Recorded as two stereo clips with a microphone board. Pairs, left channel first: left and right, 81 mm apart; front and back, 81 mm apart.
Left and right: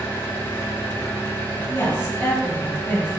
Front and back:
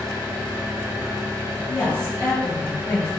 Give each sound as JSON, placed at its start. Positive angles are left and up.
{"t": 0.0, "sound": "an engine running", "azimuth_deg": 140, "distance_m": 0.9}
{"t": 1.7, "sound": "a woman speaking", "azimuth_deg": 50, "distance_m": 2.0}